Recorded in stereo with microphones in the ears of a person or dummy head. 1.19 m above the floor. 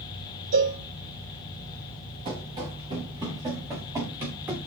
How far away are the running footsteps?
About 5.5 m.